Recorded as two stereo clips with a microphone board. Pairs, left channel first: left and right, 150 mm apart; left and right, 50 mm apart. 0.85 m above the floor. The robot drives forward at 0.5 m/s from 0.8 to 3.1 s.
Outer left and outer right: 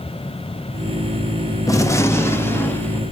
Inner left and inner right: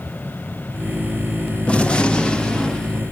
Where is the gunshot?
20° left (ahead or behind), 0.8 m; by 3.0 s 15° left (ahead or behind), 1.4 m.